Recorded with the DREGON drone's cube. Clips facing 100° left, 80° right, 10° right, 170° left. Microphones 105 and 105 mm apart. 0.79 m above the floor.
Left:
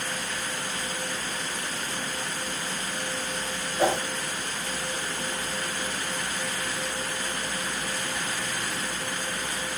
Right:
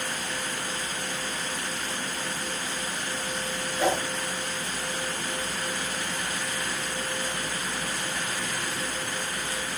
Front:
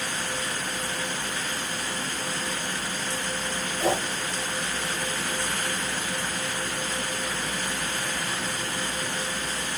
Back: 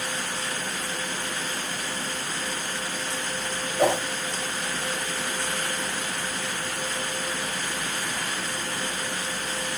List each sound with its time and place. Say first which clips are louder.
3.8 s a whoosh: left 1 dB, back 3 dB; straight behind, 5.5 m